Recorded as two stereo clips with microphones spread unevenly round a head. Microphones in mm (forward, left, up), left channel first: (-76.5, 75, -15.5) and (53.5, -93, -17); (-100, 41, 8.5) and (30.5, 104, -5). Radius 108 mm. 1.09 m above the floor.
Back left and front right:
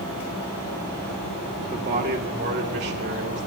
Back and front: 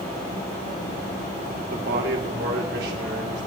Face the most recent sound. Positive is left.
turn(degrees=-10)